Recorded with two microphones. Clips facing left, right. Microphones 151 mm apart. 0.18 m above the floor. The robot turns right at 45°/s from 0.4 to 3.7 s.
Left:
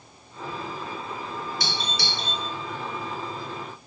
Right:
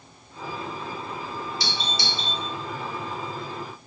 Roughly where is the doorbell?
Left.